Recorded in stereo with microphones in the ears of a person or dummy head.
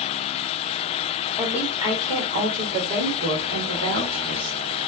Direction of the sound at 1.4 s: 5° right (ahead or behind).